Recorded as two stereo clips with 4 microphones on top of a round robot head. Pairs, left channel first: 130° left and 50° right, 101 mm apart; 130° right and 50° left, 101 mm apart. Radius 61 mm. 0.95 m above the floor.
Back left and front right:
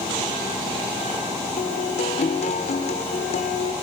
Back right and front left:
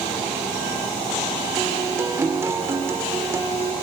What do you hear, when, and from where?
1.6 s a guitar: 115° left, 2.0 m